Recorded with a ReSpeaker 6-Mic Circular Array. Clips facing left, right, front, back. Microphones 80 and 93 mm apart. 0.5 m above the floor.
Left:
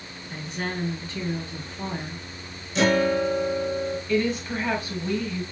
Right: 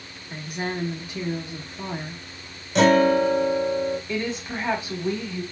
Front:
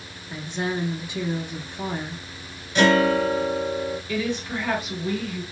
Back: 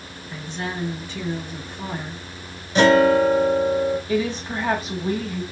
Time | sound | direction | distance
0.3 | a woman speaking | 40° right | 0.9 m
2.8 | a guitar | 120° right | 0.9 m
4.1 | a woman speaking | 145° right | 1.2 m